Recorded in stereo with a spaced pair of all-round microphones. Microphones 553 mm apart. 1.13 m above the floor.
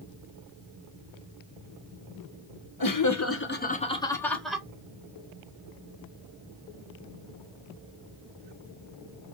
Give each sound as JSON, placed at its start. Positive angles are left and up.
{"t": 2.8, "sound": "laughter", "side_deg": 40, "distance_m": 0.8}